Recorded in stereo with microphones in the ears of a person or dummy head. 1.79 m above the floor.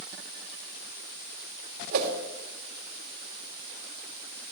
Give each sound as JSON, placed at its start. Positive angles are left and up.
{"t": 1.9, "sound": "a whoosh", "side_deg": -55, "distance_m": 2.5}